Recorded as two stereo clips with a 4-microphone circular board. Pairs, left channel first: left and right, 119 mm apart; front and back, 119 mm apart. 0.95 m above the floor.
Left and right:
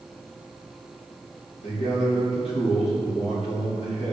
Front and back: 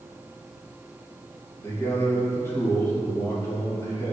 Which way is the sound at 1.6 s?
65° left.